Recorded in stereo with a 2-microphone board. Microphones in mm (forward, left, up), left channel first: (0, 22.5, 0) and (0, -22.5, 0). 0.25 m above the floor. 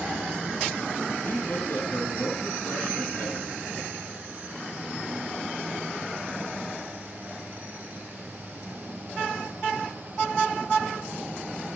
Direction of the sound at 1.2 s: 50° left (ahead or behind).